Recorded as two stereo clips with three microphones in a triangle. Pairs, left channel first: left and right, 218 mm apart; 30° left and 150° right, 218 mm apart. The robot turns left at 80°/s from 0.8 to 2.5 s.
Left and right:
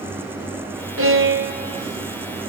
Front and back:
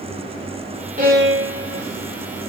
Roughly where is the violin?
Right.